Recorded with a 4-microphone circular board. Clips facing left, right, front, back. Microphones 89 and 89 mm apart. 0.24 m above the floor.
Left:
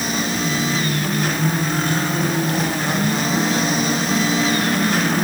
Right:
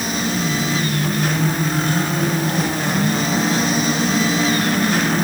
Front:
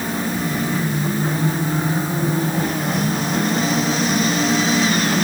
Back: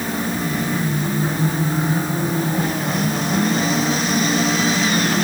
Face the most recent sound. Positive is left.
No sound to turn to.